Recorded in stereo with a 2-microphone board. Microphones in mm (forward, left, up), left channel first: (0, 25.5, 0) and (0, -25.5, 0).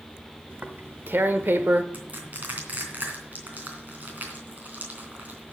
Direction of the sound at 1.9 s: 35° right (ahead or behind).